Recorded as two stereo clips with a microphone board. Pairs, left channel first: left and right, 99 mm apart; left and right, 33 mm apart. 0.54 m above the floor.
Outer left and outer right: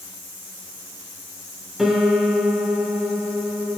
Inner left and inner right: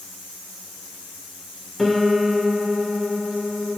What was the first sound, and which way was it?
A piano, centre (ahead or behind).